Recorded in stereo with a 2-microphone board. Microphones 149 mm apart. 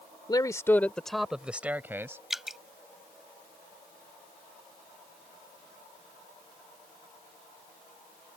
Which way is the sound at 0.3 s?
30° left (ahead or behind).